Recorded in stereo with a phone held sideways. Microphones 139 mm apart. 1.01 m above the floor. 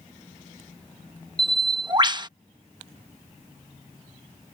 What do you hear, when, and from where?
1.4 s a bird: 35° right (ahead or behind)